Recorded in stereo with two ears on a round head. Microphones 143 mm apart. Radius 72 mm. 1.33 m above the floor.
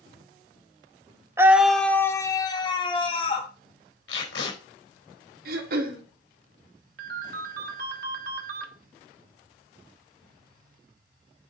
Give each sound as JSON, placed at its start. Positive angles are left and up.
{"t": 1.4, "sound": "a scream", "side_deg": -15, "distance_m": 0.7}
{"t": 4.1, "sound": "tape being pulled", "side_deg": 80, "distance_m": 4.5}
{"t": 5.5, "sound": "throat clearing", "side_deg": -60, "distance_m": 1.6}
{"t": 7.0, "sound": "a ringtone", "side_deg": -60, "distance_m": 1.3}